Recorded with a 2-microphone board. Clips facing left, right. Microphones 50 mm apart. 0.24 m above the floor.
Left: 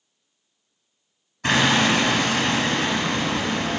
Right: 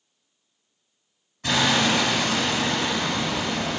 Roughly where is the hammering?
Left.